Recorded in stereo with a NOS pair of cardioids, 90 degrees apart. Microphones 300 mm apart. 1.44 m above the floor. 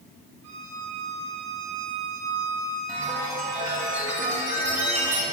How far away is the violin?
About 3.5 m.